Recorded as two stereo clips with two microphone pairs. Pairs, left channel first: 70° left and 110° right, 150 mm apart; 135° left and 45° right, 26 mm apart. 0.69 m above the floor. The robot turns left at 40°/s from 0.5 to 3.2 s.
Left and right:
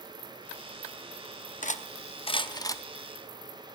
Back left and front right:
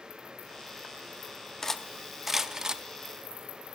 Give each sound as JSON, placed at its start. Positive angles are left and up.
{"t": 1.6, "sound": "cutlery clinking", "azimuth_deg": 55, "distance_m": 0.5}